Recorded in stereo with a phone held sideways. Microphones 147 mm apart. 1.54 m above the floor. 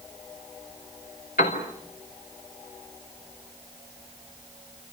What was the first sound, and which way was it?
A piano, 80° left.